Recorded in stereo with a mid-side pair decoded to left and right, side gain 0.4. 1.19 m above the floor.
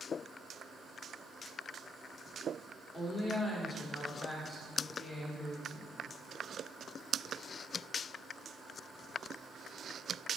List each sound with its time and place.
2.9 s a woman speaking: 25° left, 3.5 m